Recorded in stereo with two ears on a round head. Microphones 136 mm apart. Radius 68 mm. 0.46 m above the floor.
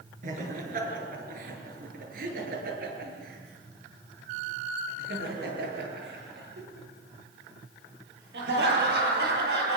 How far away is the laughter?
About 8 m.